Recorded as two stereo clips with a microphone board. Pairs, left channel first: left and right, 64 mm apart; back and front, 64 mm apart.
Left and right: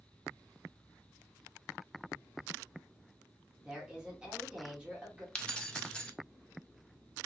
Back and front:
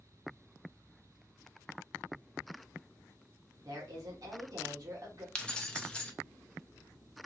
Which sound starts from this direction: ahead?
A woman speaking, at 3.6 s.